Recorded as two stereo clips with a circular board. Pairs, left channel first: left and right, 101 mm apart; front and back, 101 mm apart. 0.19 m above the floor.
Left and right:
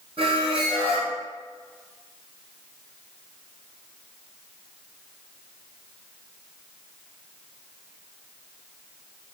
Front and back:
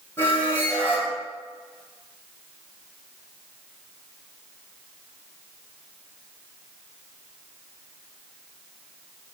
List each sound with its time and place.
0.2 s a squeak: 65° right, 2.5 m